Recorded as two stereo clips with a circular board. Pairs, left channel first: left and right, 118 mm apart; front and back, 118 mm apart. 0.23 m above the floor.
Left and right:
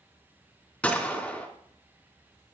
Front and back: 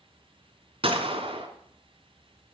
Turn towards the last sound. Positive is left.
turn(degrees=170)